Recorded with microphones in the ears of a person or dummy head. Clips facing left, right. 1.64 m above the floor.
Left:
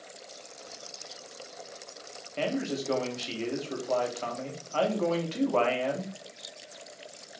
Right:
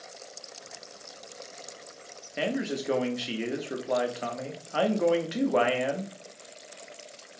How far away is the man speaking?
About 0.5 m.